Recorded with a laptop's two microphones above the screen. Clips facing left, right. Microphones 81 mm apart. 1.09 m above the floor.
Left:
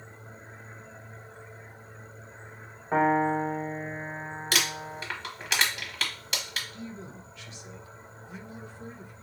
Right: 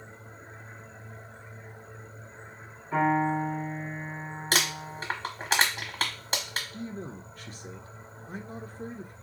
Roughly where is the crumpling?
Right.